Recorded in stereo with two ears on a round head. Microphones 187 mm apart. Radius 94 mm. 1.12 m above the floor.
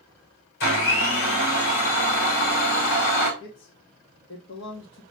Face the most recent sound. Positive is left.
turn(degrees=65)  # may be behind; listen again after turning